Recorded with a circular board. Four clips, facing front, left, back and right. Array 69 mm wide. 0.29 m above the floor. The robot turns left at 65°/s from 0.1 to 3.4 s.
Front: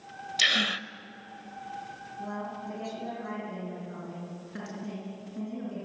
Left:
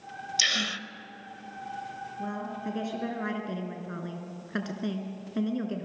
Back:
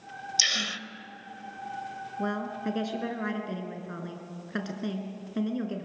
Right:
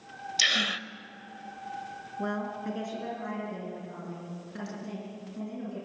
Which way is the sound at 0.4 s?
15° right.